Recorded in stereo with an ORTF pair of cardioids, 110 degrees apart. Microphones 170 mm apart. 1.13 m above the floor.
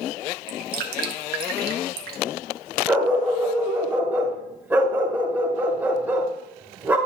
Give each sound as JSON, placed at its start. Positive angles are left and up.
{"t": 0.5, "sound": "dripping", "azimuth_deg": -65, "distance_m": 1.0}
{"t": 2.9, "sound": "a dog barking", "azimuth_deg": -10, "distance_m": 2.0}